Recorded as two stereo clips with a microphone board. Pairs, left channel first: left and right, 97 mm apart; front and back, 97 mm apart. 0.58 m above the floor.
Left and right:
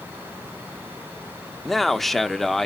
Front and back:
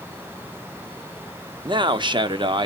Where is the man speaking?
175° left, 0.8 m.